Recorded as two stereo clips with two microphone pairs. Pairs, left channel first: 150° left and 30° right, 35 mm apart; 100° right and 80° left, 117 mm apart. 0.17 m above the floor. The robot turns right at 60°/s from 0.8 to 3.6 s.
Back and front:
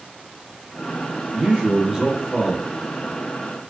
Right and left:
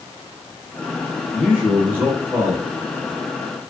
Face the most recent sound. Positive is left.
turn(degrees=130)